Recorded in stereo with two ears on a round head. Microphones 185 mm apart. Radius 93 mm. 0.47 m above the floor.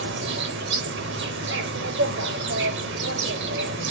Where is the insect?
60° right (ahead or behind), 0.9 m.